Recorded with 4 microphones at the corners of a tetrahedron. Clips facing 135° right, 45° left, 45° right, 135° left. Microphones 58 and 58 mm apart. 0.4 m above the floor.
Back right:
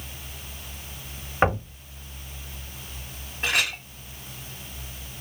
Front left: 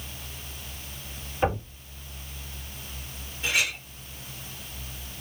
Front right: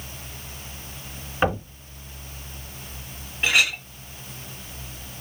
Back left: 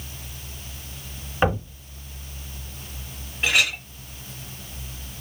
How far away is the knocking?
About 1.5 m.